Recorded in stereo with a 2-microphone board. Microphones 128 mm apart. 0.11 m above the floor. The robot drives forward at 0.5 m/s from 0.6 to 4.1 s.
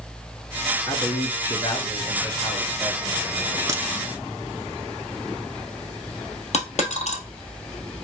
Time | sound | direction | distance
0.9 | a man speaking | 30° left (ahead or behind) | 1.4 m
3.7 | a crack | 30° right (ahead or behind) | 1.1 m
6.5 | a dropped coin | 60° left (ahead or behind) | 1.6 m